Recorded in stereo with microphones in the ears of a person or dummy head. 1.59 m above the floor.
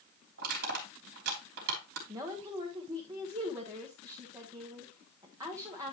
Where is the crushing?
60° right (ahead or behind), 3.5 m.